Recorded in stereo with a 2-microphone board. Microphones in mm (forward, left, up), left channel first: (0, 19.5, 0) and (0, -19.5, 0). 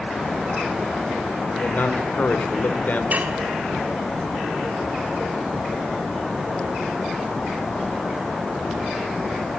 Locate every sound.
1.5 s a man speaking: 55° left (ahead or behind), 1.7 m
3.1 s dishes clattering: 45° right (ahead or behind), 1.4 m